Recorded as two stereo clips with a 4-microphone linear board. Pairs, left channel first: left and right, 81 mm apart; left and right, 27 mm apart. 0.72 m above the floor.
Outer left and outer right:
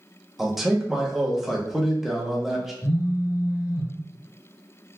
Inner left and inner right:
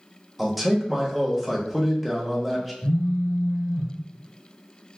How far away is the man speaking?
About 0.7 m.